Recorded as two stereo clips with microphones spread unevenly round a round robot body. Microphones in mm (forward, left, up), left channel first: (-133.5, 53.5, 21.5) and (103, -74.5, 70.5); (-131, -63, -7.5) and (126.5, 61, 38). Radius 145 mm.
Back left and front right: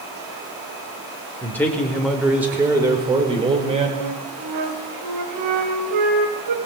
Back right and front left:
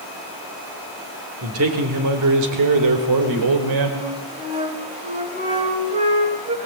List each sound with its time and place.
1.4 s a man speaking: 70° left, 3.5 m; by 3.9 s 40° left, 4.5 m
4.0 s a flute: 40° right, 3 m